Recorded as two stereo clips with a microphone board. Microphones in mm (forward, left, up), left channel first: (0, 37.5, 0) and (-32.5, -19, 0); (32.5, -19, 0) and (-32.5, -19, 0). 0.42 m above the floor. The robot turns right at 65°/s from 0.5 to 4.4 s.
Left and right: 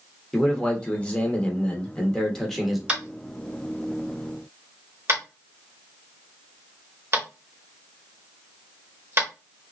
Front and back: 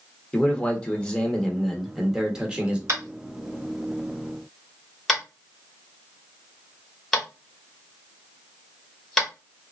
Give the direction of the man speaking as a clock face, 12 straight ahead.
12 o'clock.